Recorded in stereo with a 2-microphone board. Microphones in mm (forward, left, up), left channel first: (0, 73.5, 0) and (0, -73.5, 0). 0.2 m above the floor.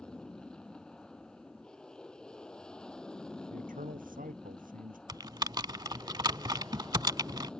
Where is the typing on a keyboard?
30° right (ahead or behind).